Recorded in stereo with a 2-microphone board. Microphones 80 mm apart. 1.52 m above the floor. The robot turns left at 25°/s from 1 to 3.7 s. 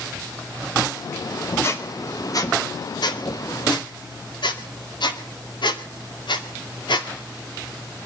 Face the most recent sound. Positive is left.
turn(degrees=70)  # may be behind; listen again after turning